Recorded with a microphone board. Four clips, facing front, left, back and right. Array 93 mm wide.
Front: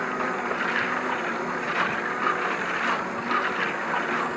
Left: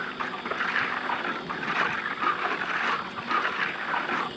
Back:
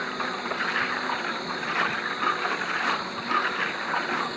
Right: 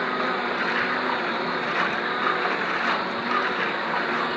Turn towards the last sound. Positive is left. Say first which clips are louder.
# right 8 dB, front 3 dB
turn(degrees=-65)